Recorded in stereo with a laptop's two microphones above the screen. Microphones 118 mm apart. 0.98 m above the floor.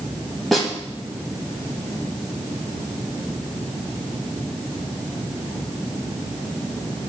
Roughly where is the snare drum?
Centre.